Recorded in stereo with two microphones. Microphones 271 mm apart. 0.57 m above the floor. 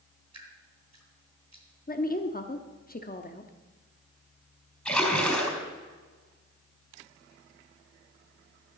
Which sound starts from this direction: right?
Dripping, at 0.3 s.